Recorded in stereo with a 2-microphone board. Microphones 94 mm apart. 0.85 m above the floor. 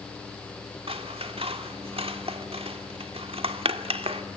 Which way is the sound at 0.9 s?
75° right (ahead or behind).